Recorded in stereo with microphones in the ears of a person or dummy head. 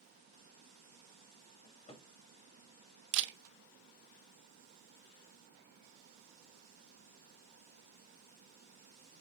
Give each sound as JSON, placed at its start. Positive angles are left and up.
{"t": 1.6, "sound": "a cupboard door", "side_deg": 35, "distance_m": 1.1}
{"t": 3.1, "sound": "a camera shutter", "side_deg": -65, "distance_m": 0.6}